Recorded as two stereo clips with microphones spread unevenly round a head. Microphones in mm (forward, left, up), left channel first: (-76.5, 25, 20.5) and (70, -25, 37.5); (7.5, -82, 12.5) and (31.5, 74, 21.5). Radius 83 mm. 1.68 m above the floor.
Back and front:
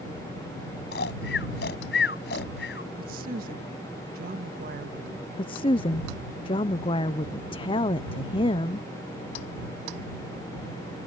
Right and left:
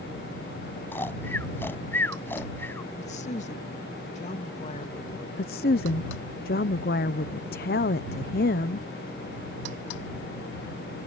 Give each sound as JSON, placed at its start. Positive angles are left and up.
{"t": 0.9, "sound": "snoring", "azimuth_deg": 180}
{"t": 3.0, "sound": "a woman speaking", "azimuth_deg": -55}
{"t": 5.4, "sound": "a woman speaking", "azimuth_deg": -140}